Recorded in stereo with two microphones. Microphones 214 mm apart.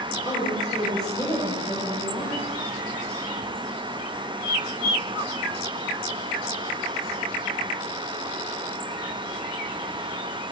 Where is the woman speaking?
20° left (ahead or behind), 6.5 m.